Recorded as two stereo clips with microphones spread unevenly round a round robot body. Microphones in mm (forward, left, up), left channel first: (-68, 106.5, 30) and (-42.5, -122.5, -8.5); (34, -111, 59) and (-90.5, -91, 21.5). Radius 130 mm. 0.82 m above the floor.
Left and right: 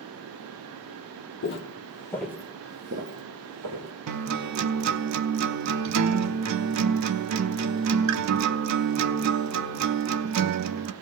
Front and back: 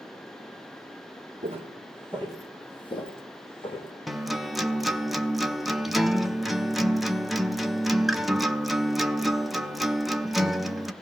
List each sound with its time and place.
1.4 s footsteps: 100° left, 1.4 m; by 3.9 s 45° right, 3 m
4.1 s a guitar: 95° right, 0.6 m